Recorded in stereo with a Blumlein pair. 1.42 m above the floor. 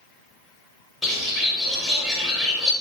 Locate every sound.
1.0 s a bird: 10° left, 1.1 m